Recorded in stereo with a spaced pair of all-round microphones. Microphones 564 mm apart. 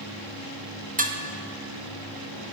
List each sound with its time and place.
1.0 s dishes clattering: 15° right (ahead or behind), 0.7 m